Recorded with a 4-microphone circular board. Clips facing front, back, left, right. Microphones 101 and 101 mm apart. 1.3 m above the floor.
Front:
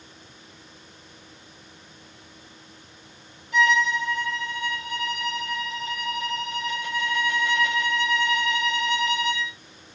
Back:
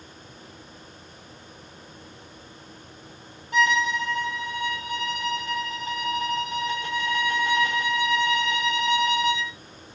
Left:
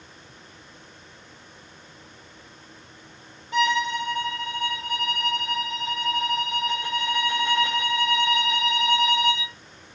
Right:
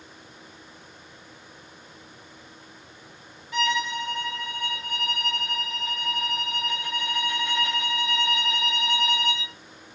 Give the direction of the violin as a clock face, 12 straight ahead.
7 o'clock.